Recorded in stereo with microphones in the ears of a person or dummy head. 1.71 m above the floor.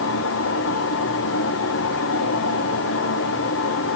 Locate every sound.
0.0 s a fan: 70° left (ahead or behind), 0.9 m